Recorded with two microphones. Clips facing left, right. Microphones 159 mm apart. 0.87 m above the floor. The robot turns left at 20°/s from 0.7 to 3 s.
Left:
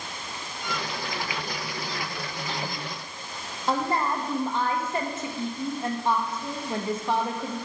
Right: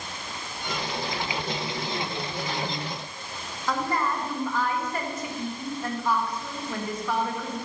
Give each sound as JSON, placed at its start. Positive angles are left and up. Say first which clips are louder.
{"t": 3.7, "sound": "a woman speaking", "louder": "left 1 dB", "side_deg": 25, "distance_m": 0.8}